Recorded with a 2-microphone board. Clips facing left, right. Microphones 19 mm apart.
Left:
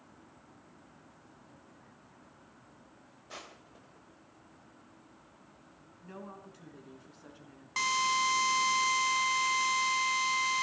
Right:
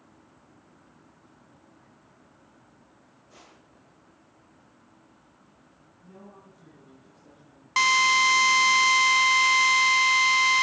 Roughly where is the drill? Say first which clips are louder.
Right 9 dB; right.